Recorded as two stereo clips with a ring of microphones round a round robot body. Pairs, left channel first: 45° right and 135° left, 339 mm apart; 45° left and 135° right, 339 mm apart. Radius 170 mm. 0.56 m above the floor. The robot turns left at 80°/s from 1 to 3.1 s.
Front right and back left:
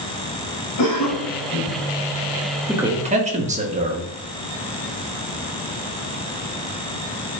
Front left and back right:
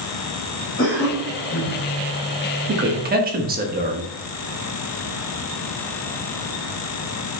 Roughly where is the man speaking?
Behind right.